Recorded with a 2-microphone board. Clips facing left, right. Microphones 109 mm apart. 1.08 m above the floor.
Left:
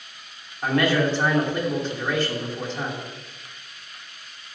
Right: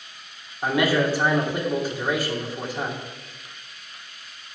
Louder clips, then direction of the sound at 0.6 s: Even; 10° right (ahead or behind).